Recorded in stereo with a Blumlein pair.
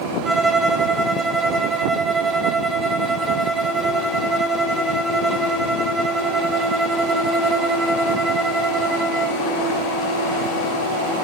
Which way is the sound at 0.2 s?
10° right.